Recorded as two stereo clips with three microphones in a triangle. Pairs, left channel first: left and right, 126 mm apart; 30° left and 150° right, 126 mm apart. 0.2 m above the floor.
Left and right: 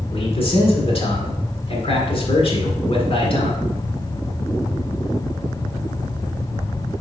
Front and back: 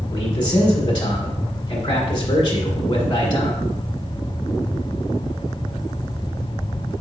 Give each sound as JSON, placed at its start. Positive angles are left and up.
{"t": 0.1, "sound": "a man speaking", "azimuth_deg": 70, "distance_m": 1.6}